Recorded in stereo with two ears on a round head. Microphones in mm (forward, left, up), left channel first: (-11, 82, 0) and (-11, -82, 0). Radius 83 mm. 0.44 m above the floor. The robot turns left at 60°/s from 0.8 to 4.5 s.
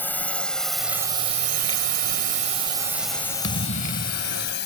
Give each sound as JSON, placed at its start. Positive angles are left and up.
{"t": 0.0, "sound": "a drone", "side_deg": 10}
{"t": 3.4, "sound": "a thud", "azimuth_deg": 110}